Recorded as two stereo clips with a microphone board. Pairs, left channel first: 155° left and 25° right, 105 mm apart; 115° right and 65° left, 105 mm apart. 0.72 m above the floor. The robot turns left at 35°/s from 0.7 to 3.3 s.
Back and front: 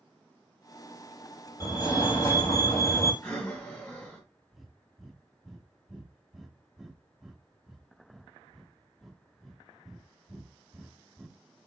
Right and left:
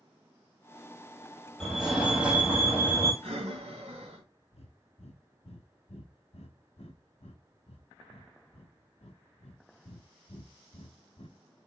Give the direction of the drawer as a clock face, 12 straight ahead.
I don't hear a drawer.